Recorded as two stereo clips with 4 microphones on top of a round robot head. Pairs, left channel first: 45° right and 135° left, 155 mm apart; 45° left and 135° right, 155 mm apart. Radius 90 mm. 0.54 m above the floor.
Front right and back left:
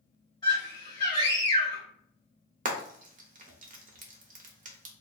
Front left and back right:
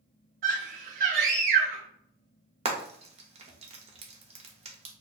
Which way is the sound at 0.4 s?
105° right.